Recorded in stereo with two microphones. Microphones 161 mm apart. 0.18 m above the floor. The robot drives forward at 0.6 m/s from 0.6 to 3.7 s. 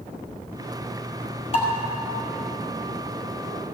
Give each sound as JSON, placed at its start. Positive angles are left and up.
{"t": 1.5, "sound": "dishes clattering", "side_deg": 40, "distance_m": 2.5}